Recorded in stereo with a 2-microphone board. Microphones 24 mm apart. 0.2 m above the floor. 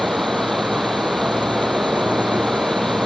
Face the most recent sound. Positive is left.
turn(degrees=-65)  # may be behind; listen again after turning